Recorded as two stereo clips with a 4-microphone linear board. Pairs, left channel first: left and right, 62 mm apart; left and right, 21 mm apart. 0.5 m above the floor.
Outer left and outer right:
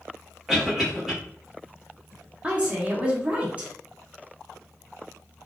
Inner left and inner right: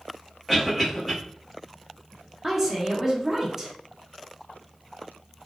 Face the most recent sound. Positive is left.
turn(degrees=-25)  # may be behind; listen again after turning